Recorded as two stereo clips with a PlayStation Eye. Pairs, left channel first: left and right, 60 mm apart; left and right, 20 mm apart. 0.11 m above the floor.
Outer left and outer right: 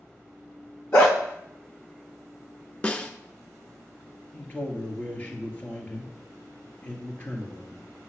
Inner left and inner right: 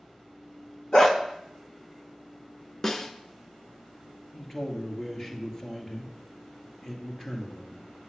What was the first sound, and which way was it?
A dog barking, 35° left (ahead or behind).